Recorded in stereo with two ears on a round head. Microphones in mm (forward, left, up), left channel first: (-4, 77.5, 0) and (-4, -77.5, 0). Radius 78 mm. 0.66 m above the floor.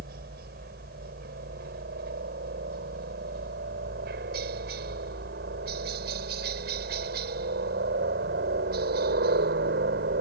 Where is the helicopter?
60° right (ahead or behind).